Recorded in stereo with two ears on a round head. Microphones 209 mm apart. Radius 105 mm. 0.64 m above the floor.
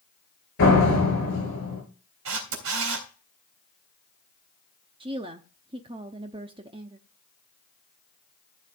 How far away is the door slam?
About 8.5 m.